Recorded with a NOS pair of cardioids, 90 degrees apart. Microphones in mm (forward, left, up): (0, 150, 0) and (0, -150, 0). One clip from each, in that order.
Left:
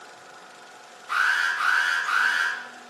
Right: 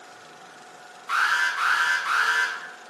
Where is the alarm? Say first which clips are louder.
Even; 60° right, 2 m.